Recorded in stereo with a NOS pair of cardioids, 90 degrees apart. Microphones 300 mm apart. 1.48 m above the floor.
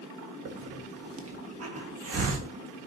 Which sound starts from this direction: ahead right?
A hiss, at 0.5 s.